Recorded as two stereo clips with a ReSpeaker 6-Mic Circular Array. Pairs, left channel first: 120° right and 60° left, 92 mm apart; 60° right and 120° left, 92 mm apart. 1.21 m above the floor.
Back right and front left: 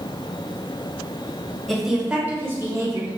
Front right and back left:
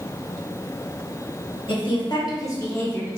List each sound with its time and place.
1.7 s a woman speaking: 30° right, 1.2 m; by 3.1 s 10° left, 1.4 m